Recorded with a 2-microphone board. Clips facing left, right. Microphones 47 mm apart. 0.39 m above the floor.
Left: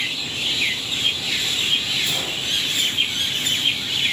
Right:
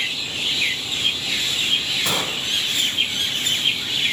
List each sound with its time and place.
2.0 s a gunshot: 70° right (ahead or behind), 0.5 m